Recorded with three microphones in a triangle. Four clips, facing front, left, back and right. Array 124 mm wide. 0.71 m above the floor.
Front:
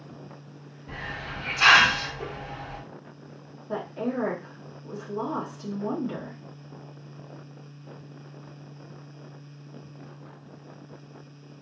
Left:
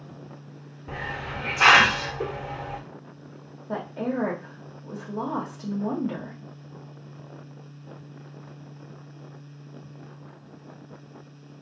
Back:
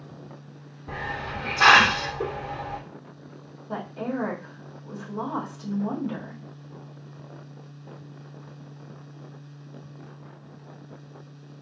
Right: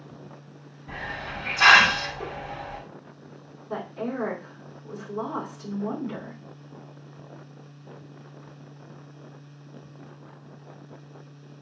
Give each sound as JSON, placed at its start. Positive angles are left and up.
{"t": 0.9, "sound": "a hiss", "azimuth_deg": 140, "distance_m": 0.7}
{"t": 3.7, "sound": "a woman speaking", "azimuth_deg": 90, "distance_m": 1.6}